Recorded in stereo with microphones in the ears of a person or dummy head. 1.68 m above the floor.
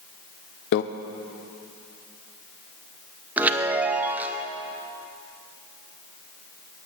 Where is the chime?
5° right (ahead or behind), 0.6 m.